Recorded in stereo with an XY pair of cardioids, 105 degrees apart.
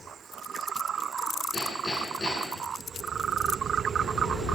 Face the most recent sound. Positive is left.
turn(degrees=25)